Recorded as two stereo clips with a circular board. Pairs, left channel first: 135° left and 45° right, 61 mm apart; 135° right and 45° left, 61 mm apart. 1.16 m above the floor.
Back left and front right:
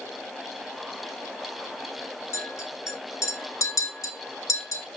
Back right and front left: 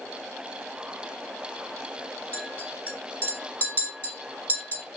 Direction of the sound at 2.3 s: 155° left.